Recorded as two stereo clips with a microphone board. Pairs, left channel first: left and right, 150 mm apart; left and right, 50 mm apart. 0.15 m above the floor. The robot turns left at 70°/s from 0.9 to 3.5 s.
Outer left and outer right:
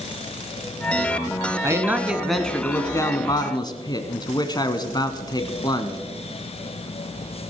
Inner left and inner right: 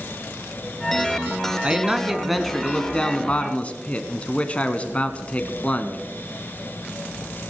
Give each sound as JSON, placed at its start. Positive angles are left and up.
{"t": 1.6, "sound": "a man speaking", "side_deg": -20, "distance_m": 1.2}